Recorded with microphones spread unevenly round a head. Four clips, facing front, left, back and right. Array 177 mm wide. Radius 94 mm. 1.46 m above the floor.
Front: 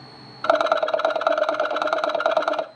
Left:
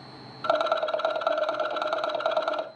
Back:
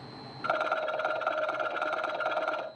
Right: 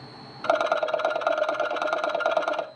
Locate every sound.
0.4 s a rattle: 15° right, 0.9 m